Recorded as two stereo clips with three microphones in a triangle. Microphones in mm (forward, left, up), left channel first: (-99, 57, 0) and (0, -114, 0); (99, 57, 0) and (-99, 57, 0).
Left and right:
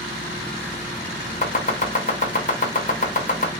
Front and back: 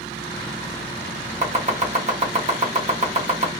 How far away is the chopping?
About 1.0 m.